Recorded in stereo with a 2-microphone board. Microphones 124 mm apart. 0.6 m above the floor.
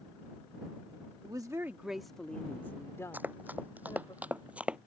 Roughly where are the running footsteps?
Centre.